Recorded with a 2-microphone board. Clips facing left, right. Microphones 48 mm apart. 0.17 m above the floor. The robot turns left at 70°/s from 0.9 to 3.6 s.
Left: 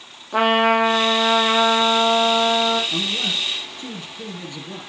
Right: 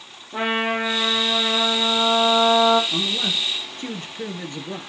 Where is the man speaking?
5° right, 3 m; by 4.9 s 55° right, 3 m.